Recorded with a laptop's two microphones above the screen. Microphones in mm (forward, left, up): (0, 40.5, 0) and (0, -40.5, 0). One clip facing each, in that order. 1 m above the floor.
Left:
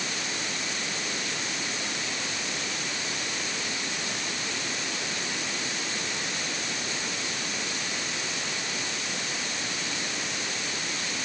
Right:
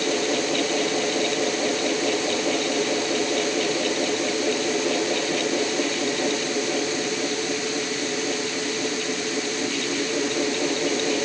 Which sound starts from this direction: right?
A fan, at 0.0 s.